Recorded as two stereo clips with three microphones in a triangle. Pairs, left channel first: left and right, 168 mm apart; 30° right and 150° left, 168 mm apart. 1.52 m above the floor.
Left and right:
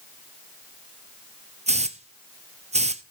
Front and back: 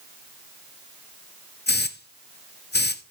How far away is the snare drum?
I don't hear a snare drum.